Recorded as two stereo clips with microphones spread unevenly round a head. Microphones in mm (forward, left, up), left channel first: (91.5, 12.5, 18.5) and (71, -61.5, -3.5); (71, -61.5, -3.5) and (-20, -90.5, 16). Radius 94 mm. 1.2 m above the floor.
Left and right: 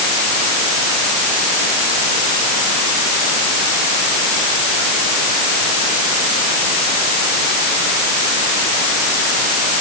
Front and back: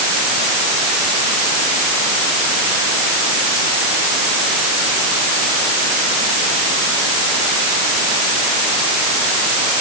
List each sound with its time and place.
Only background noise.